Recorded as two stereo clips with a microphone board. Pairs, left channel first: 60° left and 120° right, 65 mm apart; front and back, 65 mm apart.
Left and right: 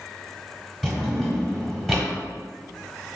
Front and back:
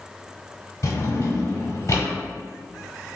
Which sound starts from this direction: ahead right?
A drawer, at 0.8 s.